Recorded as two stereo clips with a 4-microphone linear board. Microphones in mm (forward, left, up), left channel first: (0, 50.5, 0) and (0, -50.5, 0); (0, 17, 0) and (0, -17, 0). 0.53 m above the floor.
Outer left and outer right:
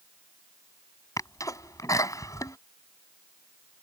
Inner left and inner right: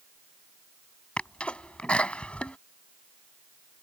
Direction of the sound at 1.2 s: 30° left (ahead or behind).